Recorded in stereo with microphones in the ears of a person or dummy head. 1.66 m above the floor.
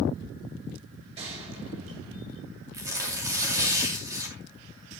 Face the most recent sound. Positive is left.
turn(degrees=-25)  # may be behind; listen again after turning